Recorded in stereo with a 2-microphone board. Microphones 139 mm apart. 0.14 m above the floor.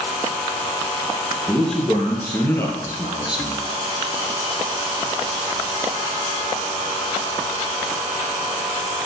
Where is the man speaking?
5° left (ahead or behind), 4.5 m; by 3.6 s 40° left (ahead or behind), 3 m.